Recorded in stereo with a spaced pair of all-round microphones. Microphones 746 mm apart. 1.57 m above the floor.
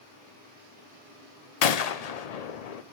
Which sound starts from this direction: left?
A gunshot, at 1.6 s.